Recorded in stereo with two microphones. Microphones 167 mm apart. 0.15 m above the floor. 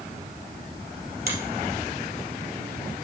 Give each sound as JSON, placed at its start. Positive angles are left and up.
{"t": 1.3, "sound": "a finger snap", "side_deg": -70, "distance_m": 3.0}